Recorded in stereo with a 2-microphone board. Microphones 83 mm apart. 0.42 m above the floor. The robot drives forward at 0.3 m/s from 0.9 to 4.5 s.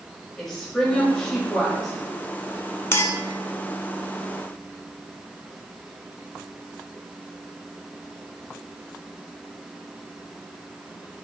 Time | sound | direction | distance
0.4 | a woman speaking | 5° left (ahead or behind) | 1.8 m
2.9 | a clink | 30° left (ahead or behind) | 0.5 m